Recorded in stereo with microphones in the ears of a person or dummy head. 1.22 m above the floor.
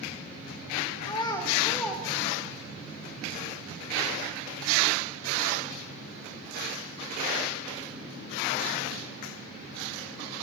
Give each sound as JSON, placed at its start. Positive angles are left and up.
{"t": 1.0, "sound": "a child speaking", "side_deg": 25, "distance_m": 2.0}